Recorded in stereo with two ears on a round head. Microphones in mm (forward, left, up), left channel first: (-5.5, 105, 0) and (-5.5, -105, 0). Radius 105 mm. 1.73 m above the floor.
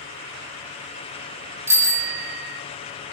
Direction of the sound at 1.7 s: 10° right (ahead or behind).